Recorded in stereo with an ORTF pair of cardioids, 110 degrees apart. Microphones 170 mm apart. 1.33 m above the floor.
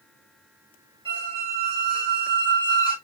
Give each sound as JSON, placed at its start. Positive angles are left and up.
{"t": 1.1, "sound": "a squeak", "azimuth_deg": -30, "distance_m": 1.9}